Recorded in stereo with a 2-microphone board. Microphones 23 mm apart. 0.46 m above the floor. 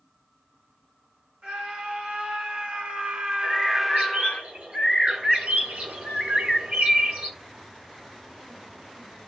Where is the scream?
65° right (ahead or behind), 4 m; by 4.4 s 40° left (ahead or behind), 0.9 m.